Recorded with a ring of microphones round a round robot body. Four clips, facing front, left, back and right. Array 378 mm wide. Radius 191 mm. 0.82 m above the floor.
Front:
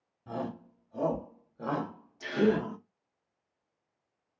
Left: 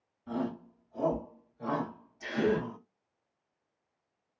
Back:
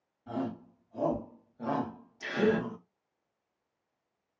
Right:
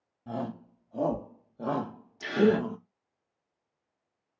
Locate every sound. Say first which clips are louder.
0.3 s a shout: left 1 dB, back 1 dB; 70° right, 1.8 m
2.2 s a gasp: right 5 dB, front 1 dB; 90° right, 1.4 m